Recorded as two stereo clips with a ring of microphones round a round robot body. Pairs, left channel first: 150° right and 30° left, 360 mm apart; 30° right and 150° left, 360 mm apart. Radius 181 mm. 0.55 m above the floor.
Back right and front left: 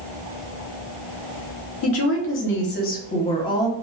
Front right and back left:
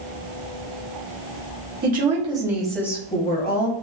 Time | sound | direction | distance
1.8 | a woman speaking | 160° right | 1.0 m